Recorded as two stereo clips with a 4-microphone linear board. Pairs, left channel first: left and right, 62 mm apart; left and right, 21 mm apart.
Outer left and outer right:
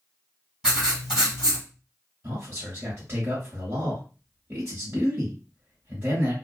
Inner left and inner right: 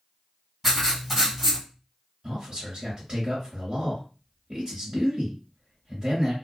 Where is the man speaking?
40° right (ahead or behind), 1.4 m.